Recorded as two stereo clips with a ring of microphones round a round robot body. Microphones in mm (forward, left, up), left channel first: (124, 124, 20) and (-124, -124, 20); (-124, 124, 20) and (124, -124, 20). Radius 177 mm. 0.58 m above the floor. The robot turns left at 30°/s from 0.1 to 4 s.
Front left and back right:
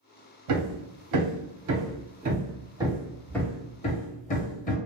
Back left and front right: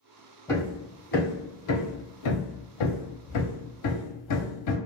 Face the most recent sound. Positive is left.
turn(degrees=110)